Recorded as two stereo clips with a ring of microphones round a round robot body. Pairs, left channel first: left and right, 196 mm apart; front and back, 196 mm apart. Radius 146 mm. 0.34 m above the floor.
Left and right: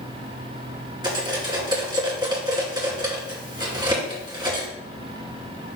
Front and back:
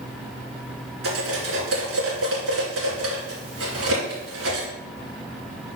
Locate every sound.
1.0 s cutlery clinking: 160° right, 2.5 m